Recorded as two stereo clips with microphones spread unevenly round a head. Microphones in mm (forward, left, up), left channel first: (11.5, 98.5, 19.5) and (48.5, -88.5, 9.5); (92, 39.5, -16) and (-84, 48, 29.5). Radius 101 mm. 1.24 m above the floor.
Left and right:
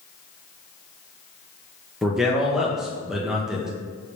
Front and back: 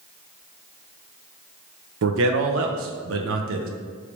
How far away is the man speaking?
About 0.5 m.